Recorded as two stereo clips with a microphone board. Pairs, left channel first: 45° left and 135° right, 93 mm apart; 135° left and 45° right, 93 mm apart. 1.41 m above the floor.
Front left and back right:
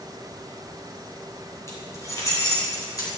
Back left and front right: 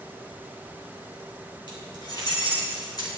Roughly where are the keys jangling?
Left.